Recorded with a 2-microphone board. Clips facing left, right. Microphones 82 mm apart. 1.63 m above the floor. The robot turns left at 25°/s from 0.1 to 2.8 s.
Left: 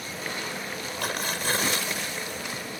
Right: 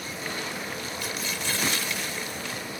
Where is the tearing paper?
55° left; by 2.6 s 15° left.